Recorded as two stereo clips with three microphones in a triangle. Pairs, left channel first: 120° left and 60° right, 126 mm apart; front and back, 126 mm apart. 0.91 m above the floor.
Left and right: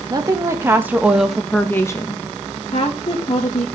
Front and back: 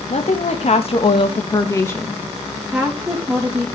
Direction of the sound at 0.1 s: 5° right.